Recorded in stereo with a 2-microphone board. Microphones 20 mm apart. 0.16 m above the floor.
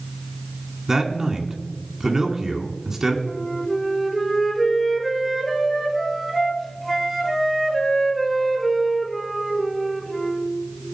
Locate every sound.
0.9 s a man speaking: 25° right (ahead or behind), 2 m
3.2 s a flute: centre (ahead or behind), 2.5 m